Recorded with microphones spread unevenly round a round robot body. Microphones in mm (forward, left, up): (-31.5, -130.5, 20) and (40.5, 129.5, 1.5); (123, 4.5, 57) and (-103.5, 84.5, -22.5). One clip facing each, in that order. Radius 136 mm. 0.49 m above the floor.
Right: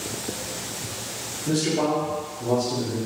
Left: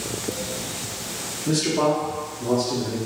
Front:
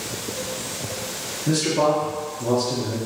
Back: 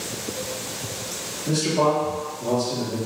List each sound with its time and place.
1.5 s a man speaking: 50° left, 0.7 m